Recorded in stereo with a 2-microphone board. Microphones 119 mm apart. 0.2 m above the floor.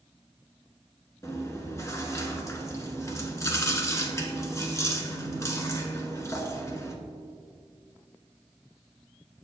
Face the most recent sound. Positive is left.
turn(degrees=25)  # may be behind; listen again after turning